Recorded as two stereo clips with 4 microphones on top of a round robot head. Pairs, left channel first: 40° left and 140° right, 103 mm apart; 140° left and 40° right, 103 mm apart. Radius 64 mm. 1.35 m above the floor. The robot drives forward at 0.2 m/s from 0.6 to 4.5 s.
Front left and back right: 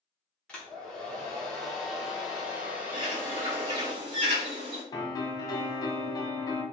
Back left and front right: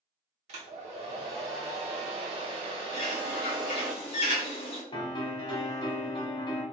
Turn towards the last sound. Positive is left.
turn(degrees=95)